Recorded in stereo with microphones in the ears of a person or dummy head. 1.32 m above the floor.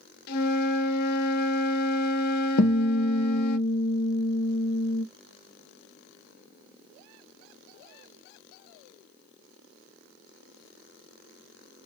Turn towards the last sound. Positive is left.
turn(degrees=80)